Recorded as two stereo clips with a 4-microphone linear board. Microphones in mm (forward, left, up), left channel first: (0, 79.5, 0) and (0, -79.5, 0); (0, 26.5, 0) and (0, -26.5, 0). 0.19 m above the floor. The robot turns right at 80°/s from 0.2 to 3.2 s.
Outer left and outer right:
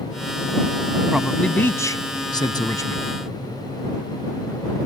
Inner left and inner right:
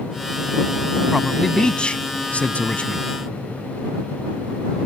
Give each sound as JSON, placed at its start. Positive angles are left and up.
{"t": 1.1, "sound": "a man speaking", "side_deg": -5}